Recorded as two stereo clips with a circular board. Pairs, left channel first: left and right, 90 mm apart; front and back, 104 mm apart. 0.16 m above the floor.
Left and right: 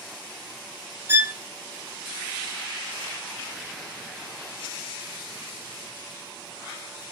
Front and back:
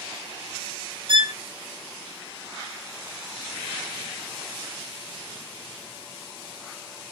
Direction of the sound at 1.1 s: 155° right.